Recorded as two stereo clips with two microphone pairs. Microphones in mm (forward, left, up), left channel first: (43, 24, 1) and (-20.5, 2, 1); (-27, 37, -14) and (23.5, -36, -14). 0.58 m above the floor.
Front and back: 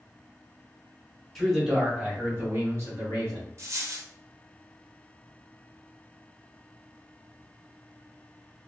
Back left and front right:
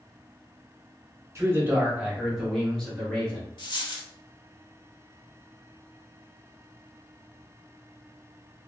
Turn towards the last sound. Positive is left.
turn(degrees=160)